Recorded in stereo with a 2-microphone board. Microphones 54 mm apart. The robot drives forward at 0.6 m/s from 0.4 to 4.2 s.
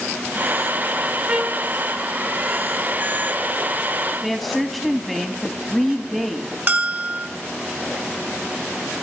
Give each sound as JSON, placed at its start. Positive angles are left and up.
{"t": 1.3, "sound": "a trumpet", "side_deg": -25, "distance_m": 1.1}
{"t": 4.2, "sound": "a woman speaking", "side_deg": -5, "distance_m": 0.6}
{"t": 6.7, "sound": "a bell", "side_deg": -40, "distance_m": 0.7}